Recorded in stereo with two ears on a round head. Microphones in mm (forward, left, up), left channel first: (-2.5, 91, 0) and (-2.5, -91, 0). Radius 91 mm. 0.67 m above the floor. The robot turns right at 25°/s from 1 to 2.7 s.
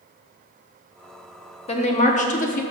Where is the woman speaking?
30° left (ahead or behind), 0.8 m; by 2.6 s 40° left (ahead or behind), 0.8 m.